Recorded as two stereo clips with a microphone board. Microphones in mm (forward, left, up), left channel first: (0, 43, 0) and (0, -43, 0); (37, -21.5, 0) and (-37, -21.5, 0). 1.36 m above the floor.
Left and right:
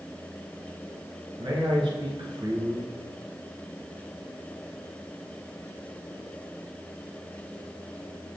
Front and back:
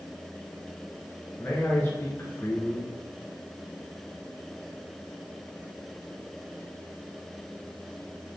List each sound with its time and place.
1.4 s a man speaking: 65° right, 1.1 m